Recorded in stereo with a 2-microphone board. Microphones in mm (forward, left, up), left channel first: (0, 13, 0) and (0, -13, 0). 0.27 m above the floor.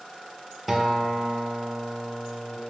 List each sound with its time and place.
0.7 s a guitar: 5° right (ahead or behind), 0.9 m